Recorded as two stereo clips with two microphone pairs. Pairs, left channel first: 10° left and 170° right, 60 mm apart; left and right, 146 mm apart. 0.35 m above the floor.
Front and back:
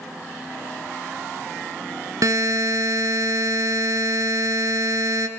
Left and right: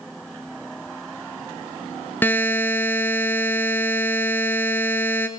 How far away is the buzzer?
About 1.3 m.